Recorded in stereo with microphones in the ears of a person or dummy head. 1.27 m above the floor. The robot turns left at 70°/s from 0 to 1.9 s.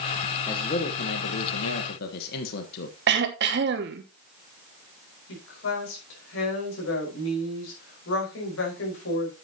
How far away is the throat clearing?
About 1.1 m.